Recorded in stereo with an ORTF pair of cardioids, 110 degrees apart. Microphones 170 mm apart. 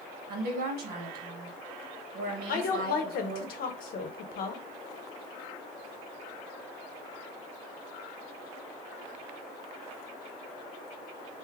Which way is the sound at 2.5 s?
60° left.